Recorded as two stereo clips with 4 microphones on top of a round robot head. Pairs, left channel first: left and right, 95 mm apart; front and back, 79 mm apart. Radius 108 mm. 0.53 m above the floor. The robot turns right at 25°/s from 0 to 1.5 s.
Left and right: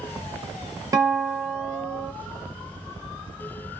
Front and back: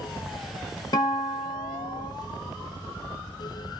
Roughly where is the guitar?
Ahead right.